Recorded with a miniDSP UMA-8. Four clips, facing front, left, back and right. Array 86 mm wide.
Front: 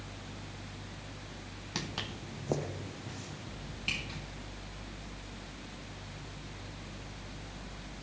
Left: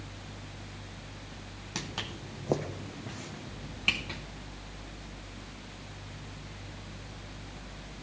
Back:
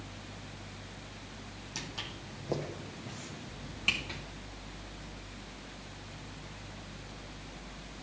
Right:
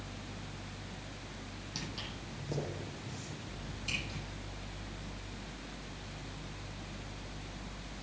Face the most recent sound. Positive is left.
turn(degrees=110)